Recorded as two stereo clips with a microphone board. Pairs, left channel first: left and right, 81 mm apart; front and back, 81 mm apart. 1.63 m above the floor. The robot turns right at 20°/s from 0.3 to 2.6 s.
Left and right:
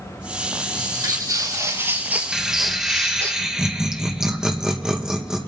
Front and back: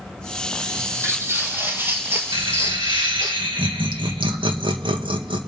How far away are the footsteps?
About 3 m.